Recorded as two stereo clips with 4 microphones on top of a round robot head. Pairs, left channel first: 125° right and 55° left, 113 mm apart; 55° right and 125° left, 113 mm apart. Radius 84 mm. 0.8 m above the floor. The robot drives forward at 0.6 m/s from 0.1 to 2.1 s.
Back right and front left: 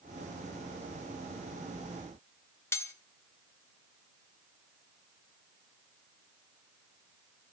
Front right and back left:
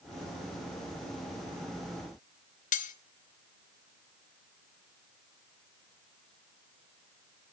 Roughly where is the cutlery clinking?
Ahead right.